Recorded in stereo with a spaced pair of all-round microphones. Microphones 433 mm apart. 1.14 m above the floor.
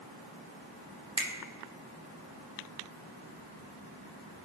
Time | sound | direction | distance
1.2 | a finger snap | 10° right (ahead or behind) | 0.9 m